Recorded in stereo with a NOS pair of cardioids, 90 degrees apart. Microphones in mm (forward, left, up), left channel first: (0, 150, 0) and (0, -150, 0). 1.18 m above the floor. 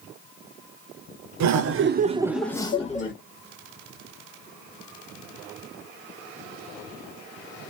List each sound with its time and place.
1.4 s laughter: 65° right, 0.8 m; by 3.1 s 30° left, 1.2 m